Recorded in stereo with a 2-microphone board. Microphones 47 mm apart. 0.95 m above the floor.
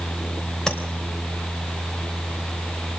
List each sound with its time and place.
0.7 s tapping: 15° left (ahead or behind), 3.5 m